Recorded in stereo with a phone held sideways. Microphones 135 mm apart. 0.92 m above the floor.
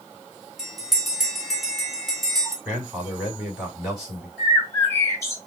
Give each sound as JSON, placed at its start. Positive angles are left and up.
{"t": 0.6, "sound": "a bell", "side_deg": 0, "distance_m": 2.0}
{"t": 2.6, "sound": "a man speaking", "side_deg": -5, "distance_m": 2.5}
{"t": 4.4, "sound": "a bird", "side_deg": 20, "distance_m": 1.6}